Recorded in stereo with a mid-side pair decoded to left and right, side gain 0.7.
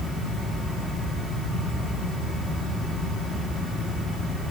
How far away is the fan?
About 5.5 m.